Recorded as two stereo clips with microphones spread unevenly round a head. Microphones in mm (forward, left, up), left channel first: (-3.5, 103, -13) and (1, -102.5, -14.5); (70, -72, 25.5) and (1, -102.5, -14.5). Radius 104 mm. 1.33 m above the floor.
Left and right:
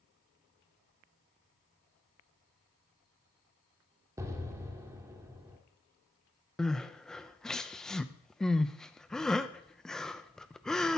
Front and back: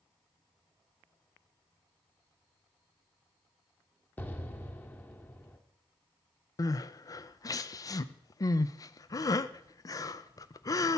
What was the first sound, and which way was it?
An explosion, 15° right.